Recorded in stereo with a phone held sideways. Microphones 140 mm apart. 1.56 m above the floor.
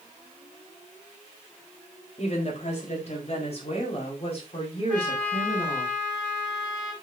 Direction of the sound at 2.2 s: 55° left (ahead or behind).